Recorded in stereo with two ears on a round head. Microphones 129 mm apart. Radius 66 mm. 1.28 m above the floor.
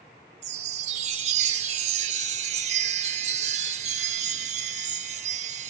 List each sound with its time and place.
0.4 s a chime: 50° right (ahead or behind), 0.7 m